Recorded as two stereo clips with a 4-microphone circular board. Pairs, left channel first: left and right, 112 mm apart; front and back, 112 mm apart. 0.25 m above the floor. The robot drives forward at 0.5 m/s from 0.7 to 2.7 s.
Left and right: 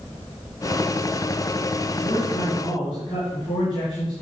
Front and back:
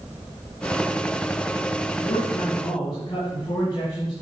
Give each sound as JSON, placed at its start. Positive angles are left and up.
{"t": 2.0, "sound": "a man speaking", "azimuth_deg": 40, "distance_m": 4.5}